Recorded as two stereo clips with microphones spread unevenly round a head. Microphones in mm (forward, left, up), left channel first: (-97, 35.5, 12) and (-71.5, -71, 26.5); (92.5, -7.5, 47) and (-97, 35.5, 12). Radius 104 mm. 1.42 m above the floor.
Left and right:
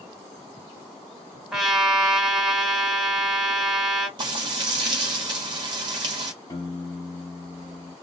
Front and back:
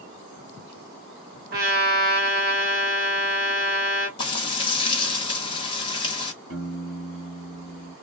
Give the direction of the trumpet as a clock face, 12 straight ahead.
5 o'clock.